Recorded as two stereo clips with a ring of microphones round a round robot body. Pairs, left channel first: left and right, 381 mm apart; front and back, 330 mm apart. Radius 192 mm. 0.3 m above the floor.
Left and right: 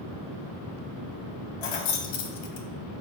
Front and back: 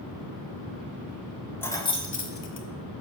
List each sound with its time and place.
1.6 s keys jangling: 85° left, 1.3 m; by 2.7 s 50° left, 1.2 m